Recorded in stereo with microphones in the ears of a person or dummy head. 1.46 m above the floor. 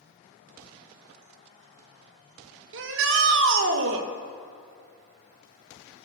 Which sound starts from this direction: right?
A shout, at 2.7 s.